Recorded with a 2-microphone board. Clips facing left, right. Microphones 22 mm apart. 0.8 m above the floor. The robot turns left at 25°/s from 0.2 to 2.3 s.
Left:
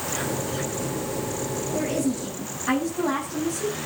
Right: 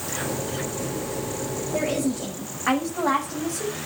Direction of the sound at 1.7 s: 80° right.